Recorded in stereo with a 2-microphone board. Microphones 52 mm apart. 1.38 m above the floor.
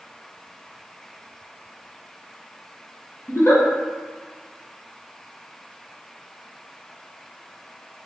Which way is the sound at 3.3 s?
50° left (ahead or behind).